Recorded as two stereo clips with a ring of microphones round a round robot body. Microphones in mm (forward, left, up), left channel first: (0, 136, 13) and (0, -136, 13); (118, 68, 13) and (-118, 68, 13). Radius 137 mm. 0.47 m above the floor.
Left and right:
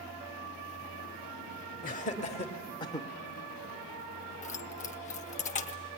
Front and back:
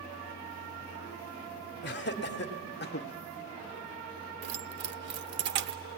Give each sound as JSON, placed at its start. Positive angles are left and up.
{"t": 1.8, "sound": "laughter", "azimuth_deg": 35, "distance_m": 1.6}
{"t": 4.4, "sound": "keys jangling", "azimuth_deg": 150, "distance_m": 0.8}